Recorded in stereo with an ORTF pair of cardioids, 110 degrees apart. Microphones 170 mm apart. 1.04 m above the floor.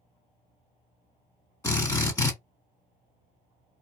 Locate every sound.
1.6 s a drill: 20° left, 1.8 m